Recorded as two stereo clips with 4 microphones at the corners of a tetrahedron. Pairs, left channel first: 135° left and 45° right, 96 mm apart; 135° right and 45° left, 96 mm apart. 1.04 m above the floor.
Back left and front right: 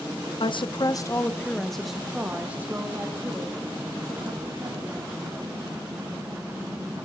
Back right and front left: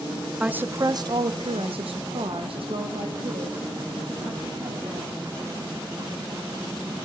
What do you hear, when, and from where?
0.4 s a woman speaking: 125° left, 0.6 m; by 5.2 s 10° left, 2.5 m